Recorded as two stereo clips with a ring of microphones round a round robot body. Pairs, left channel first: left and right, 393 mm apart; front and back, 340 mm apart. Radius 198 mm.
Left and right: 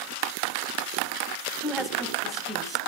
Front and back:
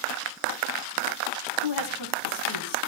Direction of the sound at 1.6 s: Straight ahead.